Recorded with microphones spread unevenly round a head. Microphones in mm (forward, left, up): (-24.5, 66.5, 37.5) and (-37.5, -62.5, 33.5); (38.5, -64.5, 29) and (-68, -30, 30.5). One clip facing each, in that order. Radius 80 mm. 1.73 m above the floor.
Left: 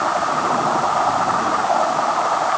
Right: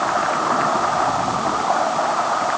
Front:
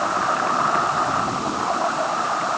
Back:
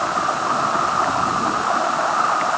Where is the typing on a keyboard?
No typing on a keyboard in this recording.